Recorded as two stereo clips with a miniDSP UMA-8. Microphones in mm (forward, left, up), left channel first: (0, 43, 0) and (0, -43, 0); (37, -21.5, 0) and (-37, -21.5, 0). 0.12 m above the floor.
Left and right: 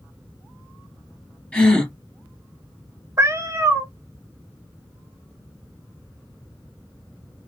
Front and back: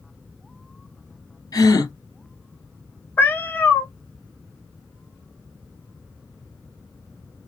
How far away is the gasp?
About 1.6 m.